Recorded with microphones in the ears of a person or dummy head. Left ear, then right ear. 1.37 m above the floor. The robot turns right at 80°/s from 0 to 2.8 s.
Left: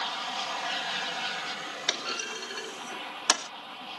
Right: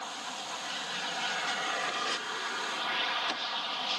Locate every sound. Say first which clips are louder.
0.0 s an aircraft: left 6 dB; 90° left; by 4.0 s 50° right
1.9 s a clunk: left 1 dB; 55° left (ahead or behind); by 3.5 s 50° left (ahead or behind)